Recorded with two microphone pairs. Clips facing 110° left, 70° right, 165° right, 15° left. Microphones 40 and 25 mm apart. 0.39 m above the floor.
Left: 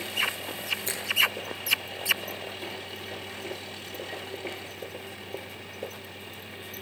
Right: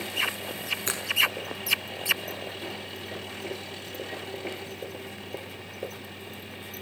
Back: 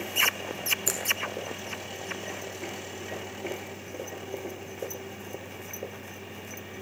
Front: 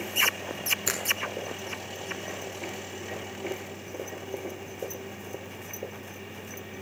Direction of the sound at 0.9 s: 45° right.